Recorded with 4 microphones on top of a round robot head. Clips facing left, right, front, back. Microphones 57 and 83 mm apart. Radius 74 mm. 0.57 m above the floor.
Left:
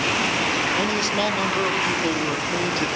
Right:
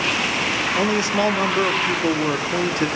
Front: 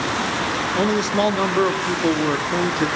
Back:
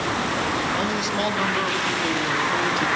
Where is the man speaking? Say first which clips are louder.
Right 3 dB, front 5 dB; 35° right, 1.5 m.